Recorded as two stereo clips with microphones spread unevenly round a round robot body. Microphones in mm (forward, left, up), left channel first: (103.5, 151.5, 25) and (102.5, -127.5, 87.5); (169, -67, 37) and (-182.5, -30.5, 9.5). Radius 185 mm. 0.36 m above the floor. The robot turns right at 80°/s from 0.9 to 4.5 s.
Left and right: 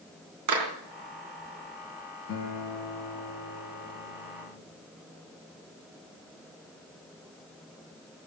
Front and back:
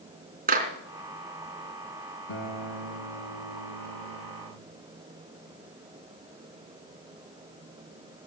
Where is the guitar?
50° left, 2.5 m; by 4.6 s 135° right, 2.5 m.